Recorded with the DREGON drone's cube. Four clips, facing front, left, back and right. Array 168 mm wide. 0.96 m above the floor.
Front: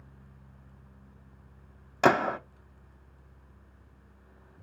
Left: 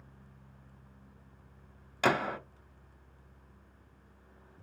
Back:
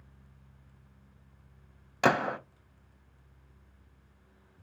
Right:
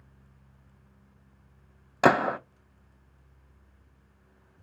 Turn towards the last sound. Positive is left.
turn(degrees=-70)